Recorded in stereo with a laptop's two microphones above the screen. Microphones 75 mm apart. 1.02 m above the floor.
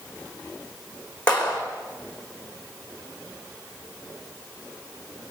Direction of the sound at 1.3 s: 15° left (ahead or behind).